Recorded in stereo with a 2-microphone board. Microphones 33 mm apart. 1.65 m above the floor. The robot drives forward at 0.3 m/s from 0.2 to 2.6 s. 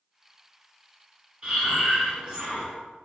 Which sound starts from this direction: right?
Breathing, at 1.4 s.